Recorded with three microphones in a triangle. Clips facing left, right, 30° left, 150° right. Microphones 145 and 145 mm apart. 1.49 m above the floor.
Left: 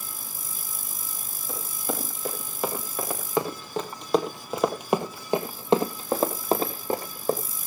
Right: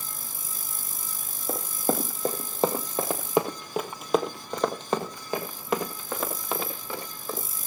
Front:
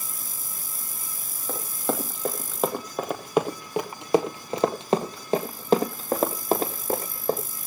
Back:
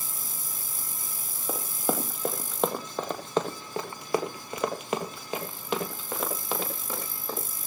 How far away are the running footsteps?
About 2.5 m.